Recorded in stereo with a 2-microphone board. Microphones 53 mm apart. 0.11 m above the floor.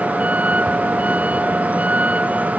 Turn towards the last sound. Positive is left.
turn(degrees=-30)  # may be behind; listen again after turning